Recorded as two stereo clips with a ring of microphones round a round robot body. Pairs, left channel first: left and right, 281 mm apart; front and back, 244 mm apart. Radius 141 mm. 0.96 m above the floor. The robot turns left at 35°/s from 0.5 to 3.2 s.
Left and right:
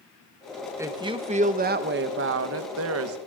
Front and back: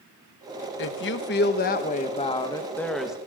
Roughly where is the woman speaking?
Ahead.